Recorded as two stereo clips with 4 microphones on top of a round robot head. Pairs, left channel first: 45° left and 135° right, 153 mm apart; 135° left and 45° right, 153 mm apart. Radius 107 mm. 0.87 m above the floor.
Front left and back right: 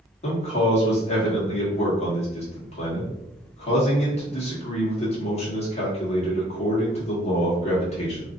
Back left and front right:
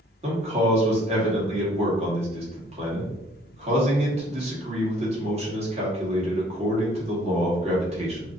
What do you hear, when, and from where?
0.2 s a man speaking: straight ahead, 1.5 m